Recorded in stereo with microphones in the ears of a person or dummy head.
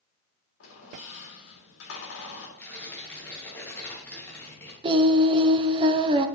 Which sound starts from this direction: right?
Singing, at 4.8 s.